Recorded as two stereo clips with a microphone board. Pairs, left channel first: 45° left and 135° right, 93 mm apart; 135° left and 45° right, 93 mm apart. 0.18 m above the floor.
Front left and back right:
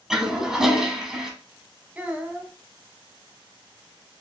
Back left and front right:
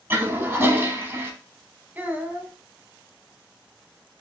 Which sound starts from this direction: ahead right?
A toilet flushing, at 0.1 s.